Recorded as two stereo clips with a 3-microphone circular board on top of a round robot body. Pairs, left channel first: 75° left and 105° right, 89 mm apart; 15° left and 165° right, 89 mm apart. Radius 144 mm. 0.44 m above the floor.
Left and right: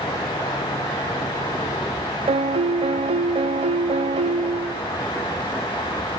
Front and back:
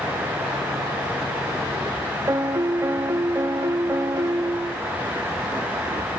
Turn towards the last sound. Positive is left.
turn(degrees=-100)